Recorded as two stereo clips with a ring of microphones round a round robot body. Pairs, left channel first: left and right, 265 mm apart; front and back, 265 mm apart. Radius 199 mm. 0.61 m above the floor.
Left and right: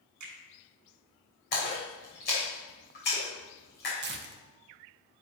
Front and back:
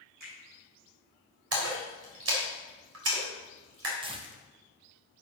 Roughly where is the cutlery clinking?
I don't hear cutlery clinking.